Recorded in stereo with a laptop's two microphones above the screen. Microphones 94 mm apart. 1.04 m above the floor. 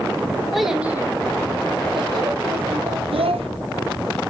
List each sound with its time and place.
0.5 s a child speaking: centre (ahead or behind), 1.1 m; by 3.0 s 75° right (ahead or behind), 2 m
3.1 s a child speaking: 85° right, 0.6 m